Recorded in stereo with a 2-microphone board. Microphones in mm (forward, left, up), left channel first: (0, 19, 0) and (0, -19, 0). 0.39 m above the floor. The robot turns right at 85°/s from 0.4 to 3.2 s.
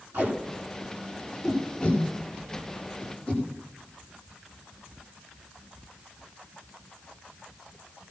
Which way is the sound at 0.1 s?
85° right.